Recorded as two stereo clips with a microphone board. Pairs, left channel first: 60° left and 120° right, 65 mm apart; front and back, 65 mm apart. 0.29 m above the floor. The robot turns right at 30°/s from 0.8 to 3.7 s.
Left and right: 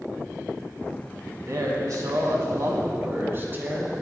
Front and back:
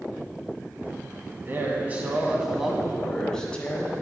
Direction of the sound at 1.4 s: 135° right.